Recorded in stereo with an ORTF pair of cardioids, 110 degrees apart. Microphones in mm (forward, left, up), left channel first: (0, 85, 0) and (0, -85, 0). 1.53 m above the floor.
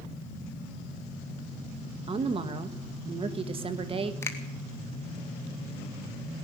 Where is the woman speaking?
35° right, 1.6 m.